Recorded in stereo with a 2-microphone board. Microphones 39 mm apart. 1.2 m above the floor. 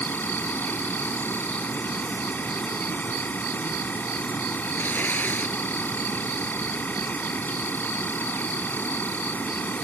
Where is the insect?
50° left (ahead or behind).